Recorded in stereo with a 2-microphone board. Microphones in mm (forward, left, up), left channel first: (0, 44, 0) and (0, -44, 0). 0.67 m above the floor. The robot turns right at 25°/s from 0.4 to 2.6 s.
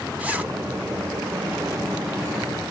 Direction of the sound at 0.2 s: 15° right (ahead or behind).